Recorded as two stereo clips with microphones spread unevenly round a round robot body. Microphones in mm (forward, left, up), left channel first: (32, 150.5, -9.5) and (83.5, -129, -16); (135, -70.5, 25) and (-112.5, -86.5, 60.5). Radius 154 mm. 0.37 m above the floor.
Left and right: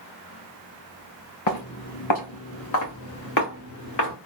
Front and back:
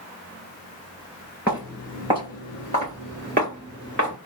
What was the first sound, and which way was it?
Footsteps, 100° left.